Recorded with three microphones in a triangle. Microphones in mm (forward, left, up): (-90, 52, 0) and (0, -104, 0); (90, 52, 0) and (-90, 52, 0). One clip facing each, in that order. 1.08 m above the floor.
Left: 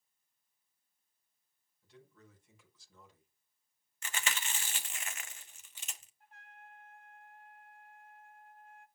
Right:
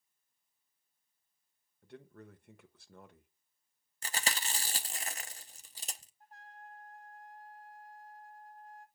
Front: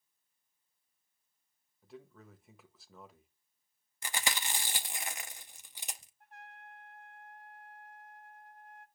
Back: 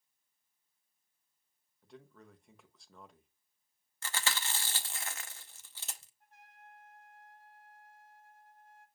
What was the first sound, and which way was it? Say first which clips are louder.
A man speaking: right 8 dB, front 2 dB; 85° right.